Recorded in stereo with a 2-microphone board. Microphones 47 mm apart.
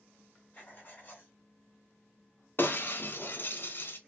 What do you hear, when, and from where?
0.5 s writing: 35° left (ahead or behind), 1.2 m
2.6 s breaking glass: 45° left (ahead or behind), 0.7 m